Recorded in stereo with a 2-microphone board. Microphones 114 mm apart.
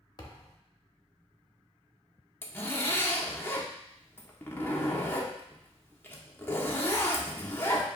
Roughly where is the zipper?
Centre.